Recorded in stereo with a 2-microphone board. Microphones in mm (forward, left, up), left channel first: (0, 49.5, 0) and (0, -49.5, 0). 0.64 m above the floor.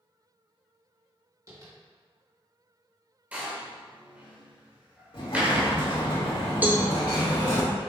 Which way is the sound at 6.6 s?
20° right (ahead or behind).